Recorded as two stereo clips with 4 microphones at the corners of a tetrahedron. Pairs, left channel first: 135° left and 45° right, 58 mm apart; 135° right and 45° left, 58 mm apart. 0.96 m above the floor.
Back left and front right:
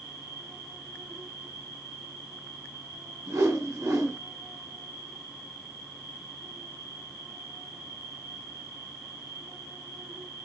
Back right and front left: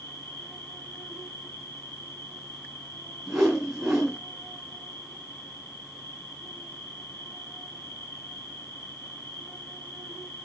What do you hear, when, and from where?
0.0 s an insect: 85° right, 3.5 m
3.3 s a whoosh: 35° right, 2.5 m